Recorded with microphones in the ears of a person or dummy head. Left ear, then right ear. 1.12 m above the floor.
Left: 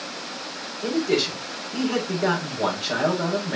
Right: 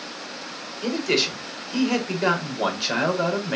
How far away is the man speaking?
About 4.5 m.